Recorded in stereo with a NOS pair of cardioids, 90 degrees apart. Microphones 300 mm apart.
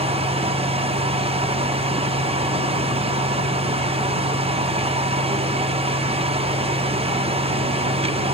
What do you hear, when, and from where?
0.0 s a fan: 20° right, 0.7 m